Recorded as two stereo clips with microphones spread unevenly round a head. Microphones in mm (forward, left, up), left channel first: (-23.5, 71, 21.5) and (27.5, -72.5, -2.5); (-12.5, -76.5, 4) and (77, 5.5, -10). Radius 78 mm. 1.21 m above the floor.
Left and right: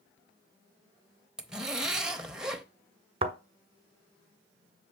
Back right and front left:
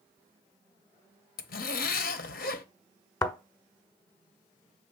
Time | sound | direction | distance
1.4 | a zipper | 155° right | 0.7 m
3.2 | a thud | 115° right | 1.2 m